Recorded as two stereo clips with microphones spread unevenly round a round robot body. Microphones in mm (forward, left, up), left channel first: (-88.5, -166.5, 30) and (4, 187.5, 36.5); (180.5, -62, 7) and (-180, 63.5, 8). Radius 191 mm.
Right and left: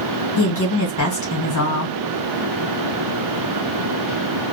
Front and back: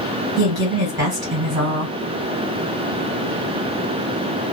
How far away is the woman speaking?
About 1.7 m.